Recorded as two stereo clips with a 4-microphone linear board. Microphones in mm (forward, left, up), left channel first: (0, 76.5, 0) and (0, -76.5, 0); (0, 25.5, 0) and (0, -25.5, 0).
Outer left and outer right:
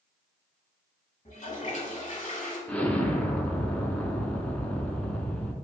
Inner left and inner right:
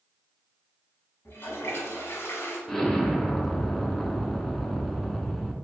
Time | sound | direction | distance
1.2 | a toilet flushing | 50° left (ahead or behind) | 1.1 m
2.7 | an explosion | 10° left (ahead or behind) | 0.6 m